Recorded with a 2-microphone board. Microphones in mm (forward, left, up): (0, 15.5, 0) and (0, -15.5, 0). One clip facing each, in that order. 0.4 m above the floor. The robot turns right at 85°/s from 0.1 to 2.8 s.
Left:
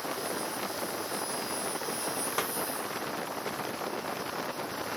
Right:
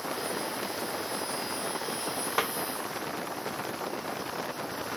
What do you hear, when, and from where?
2.4 s a snare drum: 15° right (ahead or behind); by 2.5 s 30° right (ahead or behind)